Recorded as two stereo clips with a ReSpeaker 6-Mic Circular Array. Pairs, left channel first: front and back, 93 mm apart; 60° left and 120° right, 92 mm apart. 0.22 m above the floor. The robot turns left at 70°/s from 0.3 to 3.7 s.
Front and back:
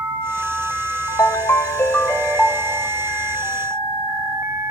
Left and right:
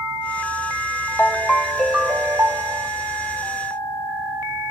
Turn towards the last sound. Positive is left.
turn(degrees=-175)